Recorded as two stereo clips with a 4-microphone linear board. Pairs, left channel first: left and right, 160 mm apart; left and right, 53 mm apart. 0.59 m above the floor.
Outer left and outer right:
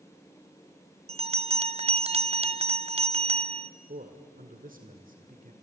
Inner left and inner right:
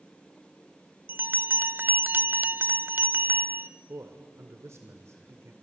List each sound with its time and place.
1.1 s a bell: 40° right (ahead or behind), 0.5 m
3.9 s a man speaking: 60° right (ahead or behind), 2 m